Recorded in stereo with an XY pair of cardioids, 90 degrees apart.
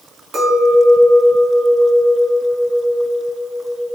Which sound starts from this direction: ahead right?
A clink, at 0.3 s.